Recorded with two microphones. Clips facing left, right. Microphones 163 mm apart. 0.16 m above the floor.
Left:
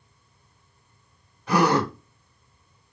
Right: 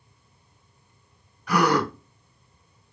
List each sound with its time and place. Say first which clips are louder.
1.5 s a gasp: left 1 dB; 25° left (ahead or behind), 0.7 m